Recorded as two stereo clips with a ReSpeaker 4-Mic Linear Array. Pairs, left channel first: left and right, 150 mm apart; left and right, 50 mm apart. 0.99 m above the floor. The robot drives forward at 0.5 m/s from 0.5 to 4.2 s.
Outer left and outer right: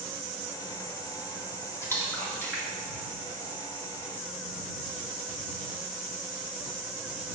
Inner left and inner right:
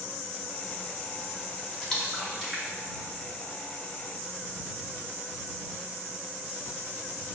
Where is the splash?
15° left (ahead or behind), 1.8 m; by 4.0 s 10° left (ahead or behind), 3 m.